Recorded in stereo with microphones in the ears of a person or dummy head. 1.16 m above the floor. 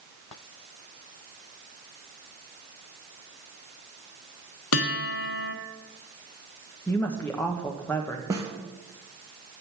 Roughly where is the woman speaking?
Centre.